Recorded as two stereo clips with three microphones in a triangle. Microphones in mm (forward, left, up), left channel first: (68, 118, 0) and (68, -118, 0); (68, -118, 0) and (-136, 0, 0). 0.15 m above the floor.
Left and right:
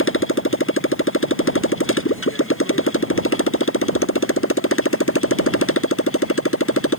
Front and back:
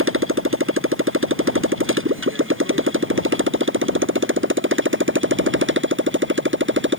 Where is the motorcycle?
120° left; by 7.0 s 115° left.